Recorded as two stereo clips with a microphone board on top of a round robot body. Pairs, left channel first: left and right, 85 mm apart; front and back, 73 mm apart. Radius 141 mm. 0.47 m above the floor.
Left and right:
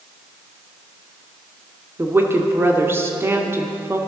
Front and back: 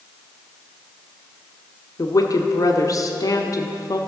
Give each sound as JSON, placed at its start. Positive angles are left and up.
{"t": 2.0, "sound": "a woman speaking", "azimuth_deg": -30, "distance_m": 1.3}